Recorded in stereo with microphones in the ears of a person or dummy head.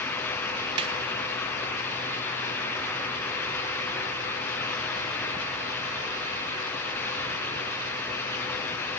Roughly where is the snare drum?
Right.